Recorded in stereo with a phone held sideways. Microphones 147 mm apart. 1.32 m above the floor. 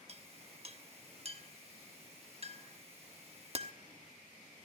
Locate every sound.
0.1 s a clink: 45° right (ahead or behind), 1.1 m